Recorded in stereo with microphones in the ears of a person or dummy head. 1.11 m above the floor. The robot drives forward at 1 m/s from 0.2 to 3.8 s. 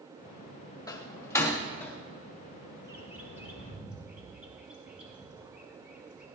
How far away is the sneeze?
I don't hear a sneeze.